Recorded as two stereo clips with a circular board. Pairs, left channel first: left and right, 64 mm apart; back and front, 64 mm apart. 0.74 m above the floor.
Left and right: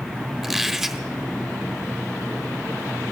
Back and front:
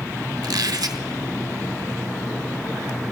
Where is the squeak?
10° right, 0.7 m.